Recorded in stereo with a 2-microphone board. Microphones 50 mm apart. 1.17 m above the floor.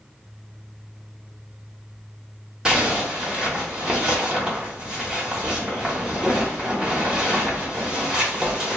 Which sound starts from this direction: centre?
A zipper, at 2.6 s.